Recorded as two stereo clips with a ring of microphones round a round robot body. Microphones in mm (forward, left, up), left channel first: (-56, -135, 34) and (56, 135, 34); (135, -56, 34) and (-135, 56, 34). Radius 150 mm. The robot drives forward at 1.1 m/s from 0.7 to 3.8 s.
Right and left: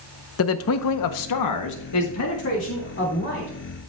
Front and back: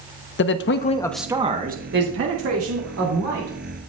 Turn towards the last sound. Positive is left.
turn(degrees=-165)